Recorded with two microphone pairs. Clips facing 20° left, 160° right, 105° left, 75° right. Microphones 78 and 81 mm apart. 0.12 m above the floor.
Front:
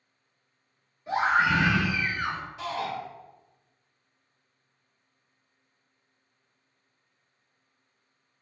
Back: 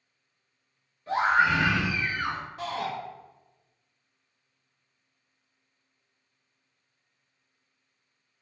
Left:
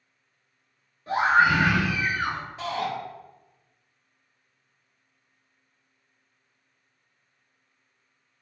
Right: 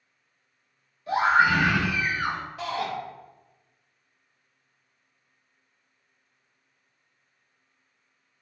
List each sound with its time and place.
1.1 s a scream: 90° left, 1.4 m; by 2.4 s 175° left, 1.7 m
2.6 s a shout: 160° left, 1.8 m